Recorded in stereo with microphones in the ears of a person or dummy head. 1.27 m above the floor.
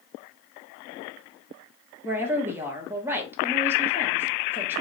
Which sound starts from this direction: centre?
A woman speaking, at 2.0 s.